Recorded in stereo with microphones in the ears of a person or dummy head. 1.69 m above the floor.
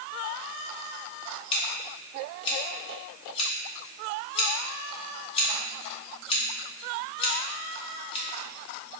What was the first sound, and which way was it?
Scissors, 30° left (ahead or behind).